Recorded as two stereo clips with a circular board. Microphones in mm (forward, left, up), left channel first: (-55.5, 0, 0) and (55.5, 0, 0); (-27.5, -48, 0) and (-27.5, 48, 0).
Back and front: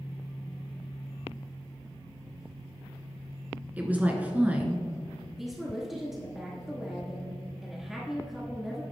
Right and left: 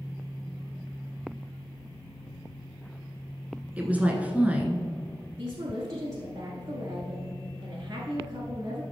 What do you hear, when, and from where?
3.8 s a woman speaking: 45° left, 1.1 m
5.4 s a woman speaking: 85° left, 1.4 m